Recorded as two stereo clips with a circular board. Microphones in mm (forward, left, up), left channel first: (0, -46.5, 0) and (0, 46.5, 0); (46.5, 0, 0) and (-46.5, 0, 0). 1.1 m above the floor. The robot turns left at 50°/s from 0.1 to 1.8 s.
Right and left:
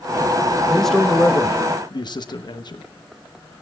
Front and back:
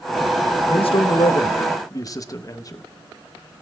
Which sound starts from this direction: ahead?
A man speaking, at 0.7 s.